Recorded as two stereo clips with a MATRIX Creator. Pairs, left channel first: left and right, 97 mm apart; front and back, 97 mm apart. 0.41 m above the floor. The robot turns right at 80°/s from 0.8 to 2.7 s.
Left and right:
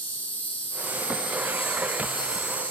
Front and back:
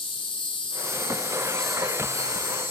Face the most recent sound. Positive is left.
turn(degrees=170)